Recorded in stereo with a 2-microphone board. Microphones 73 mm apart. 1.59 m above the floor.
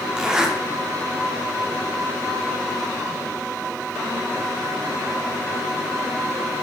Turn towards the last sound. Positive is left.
turn(degrees=-10)  # may be behind; listen again after turning